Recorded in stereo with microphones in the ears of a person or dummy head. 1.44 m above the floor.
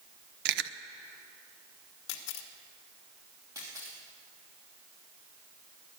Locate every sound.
0.5 s chewing: 60° right (ahead or behind), 0.6 m
2.1 s a camera shutter: 80° left, 1.3 m
3.5 s a camera shutter: 20° right (ahead or behind), 2.5 m